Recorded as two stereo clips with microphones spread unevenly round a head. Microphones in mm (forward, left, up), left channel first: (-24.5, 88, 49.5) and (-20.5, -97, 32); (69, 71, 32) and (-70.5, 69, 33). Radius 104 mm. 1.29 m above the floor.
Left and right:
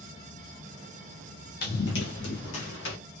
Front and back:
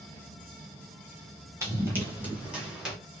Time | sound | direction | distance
1.6 | running footsteps | 115° left | 2.5 m